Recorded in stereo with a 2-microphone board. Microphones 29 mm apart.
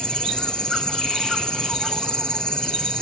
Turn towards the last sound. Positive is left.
turn(degrees=35)  # may be behind; listen again after turning